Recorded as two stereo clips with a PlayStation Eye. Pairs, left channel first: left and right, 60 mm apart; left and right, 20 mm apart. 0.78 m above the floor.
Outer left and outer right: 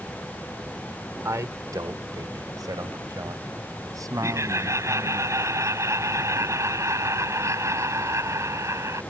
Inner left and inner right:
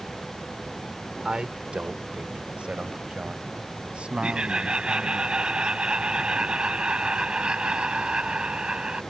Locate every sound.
1.2 s a man speaking: 60° right (ahead or behind); by 5.2 s 70° right (ahead or behind)
4.2 s laughter: 55° right (ahead or behind)